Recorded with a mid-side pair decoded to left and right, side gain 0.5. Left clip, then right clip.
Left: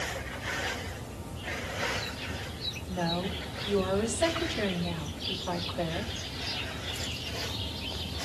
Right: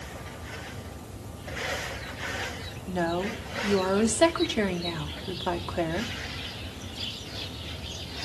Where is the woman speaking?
70° right, 2 m.